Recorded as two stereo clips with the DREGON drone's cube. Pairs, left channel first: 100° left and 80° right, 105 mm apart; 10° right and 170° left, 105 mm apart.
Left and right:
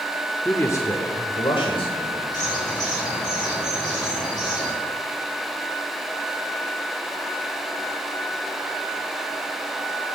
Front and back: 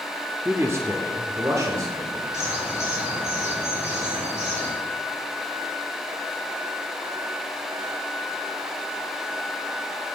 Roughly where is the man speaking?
Behind left.